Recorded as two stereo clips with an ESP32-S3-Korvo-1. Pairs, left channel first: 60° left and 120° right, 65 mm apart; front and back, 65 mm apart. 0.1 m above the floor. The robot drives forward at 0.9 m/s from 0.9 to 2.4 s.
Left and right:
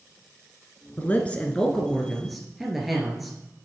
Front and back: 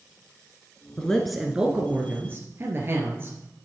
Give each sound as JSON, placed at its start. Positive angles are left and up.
{"t": 1.0, "sound": "a man speaking", "azimuth_deg": 60, "distance_m": 1.3}